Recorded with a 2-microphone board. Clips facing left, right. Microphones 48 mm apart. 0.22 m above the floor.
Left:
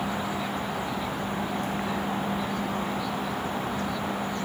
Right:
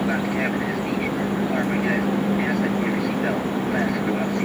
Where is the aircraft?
55° right (ahead or behind).